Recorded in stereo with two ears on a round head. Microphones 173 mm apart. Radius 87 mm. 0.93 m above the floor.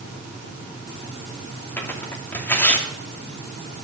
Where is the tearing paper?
10° left (ahead or behind), 2.5 m.